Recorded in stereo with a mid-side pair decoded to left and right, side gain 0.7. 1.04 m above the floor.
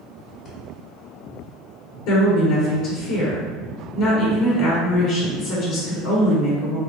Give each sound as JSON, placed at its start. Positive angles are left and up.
{"t": 0.5, "sound": "breathing", "azimuth_deg": 50, "distance_m": 1.1}
{"t": 2.1, "sound": "a woman speaking", "azimuth_deg": 70, "distance_m": 1.2}